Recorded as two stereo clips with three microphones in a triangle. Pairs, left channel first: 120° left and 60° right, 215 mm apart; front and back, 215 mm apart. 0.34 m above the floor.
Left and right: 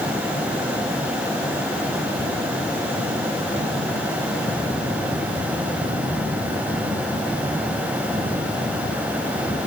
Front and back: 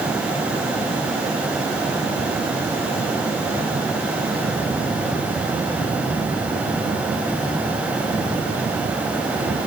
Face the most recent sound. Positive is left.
No sound to turn to.